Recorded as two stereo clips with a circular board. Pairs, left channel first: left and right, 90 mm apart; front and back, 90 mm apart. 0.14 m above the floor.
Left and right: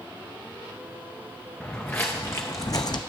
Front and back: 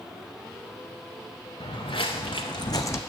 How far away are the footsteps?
About 1.1 m.